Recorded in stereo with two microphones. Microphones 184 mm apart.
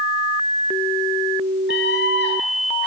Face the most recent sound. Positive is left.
turn(degrees=70)  # may be behind; listen again after turning